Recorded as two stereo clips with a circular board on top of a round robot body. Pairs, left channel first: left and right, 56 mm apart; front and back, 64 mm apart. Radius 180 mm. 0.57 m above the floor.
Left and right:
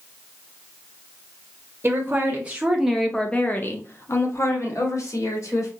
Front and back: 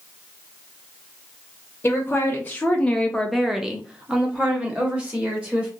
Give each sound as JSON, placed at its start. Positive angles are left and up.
{"t": 1.8, "sound": "a woman speaking", "azimuth_deg": -50, "distance_m": 1.1}